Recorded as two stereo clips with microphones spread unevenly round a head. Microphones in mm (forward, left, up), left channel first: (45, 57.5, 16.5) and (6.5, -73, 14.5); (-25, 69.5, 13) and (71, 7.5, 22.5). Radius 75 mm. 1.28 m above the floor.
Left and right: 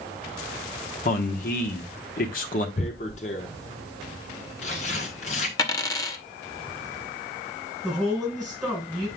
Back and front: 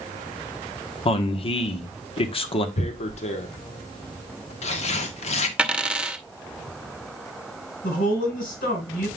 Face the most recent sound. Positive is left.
turn(degrees=160)